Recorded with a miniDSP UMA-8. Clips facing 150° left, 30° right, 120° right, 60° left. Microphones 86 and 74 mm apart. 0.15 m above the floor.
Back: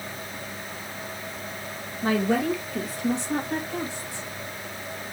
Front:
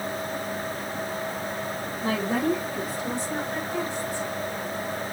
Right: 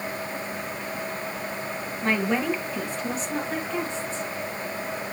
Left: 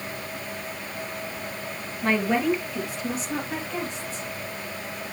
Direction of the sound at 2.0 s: 150° left.